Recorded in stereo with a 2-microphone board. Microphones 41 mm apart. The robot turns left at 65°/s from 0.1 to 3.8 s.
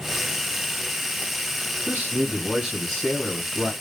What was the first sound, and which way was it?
A man speaking, 105° right.